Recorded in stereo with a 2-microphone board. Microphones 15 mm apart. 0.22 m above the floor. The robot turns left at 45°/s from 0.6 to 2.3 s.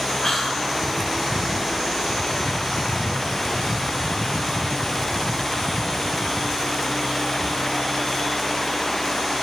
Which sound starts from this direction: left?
Whispering, at 0.2 s.